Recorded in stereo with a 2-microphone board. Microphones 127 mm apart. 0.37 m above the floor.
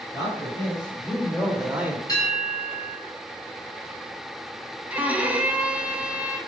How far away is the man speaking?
About 3 m.